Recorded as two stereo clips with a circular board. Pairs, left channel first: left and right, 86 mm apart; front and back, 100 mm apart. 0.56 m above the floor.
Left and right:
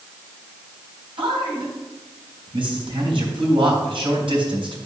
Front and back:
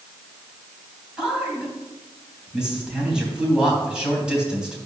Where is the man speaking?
100° right, 3 m.